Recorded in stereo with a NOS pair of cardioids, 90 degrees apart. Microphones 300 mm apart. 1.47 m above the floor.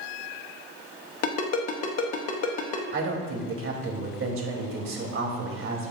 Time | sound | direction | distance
1.2 | a ringtone | 60° left | 1.5 m
2.9 | a woman speaking | 45° right | 3 m